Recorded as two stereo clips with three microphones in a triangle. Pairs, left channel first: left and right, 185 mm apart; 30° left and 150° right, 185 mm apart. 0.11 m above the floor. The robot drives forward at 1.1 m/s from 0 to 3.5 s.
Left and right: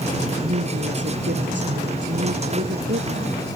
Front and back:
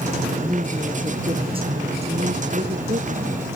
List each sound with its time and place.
0.4 s a woman speaking: 80° right; by 3.5 s 105° right